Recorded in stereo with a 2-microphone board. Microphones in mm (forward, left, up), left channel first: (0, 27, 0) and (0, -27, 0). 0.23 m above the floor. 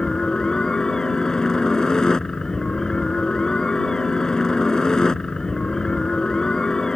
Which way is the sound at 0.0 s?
15° left (ahead or behind).